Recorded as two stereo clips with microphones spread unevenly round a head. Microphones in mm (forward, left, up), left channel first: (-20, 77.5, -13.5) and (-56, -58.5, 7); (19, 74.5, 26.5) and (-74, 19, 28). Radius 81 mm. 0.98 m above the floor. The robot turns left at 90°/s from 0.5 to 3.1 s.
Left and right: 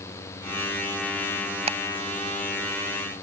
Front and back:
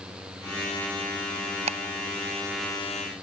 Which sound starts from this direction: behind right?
Ticking, at 1.7 s.